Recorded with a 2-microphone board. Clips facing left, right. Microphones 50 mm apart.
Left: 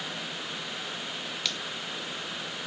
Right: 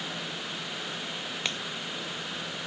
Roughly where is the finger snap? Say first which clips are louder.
Right 2 dB; right.